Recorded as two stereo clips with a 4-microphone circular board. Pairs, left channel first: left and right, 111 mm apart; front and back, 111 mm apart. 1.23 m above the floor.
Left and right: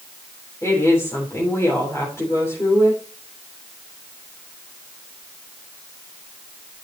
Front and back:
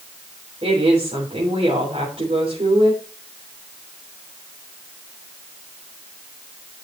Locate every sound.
0.6 s a woman speaking: 155° left, 3.5 m